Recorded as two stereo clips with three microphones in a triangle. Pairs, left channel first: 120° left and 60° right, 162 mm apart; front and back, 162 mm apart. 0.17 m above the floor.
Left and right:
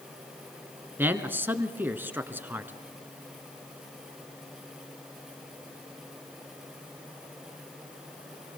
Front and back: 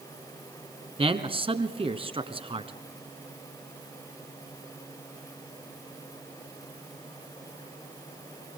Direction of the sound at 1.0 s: 135° right.